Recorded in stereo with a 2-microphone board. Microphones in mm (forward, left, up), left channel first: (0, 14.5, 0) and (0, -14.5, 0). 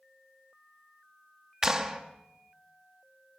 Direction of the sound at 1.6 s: 20° right (ahead or behind).